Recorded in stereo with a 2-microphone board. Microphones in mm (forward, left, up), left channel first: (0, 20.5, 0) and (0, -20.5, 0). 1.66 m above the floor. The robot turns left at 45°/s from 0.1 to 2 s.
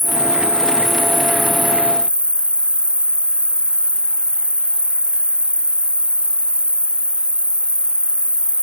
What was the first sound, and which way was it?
An insect, 110° left.